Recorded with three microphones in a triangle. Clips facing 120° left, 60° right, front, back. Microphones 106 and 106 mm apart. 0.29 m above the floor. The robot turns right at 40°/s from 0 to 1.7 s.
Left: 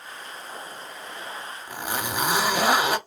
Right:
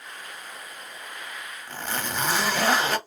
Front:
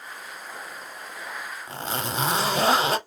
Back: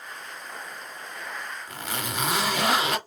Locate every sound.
1.7 s a zipper: 50° left, 0.8 m